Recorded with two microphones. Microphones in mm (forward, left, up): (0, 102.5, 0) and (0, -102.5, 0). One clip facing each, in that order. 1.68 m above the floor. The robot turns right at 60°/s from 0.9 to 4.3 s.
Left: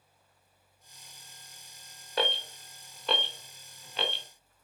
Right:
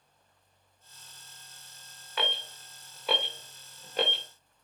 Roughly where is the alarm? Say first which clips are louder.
Left 4 dB; left.